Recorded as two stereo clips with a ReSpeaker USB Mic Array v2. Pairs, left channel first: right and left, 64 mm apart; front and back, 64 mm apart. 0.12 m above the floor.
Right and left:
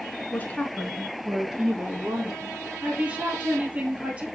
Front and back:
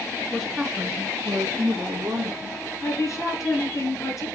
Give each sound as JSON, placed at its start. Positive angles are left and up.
{"t": 0.3, "sound": "a woman speaking", "azimuth_deg": -70, "distance_m": 1.2}
{"t": 2.8, "sound": "a woman speaking", "azimuth_deg": 20, "distance_m": 2.5}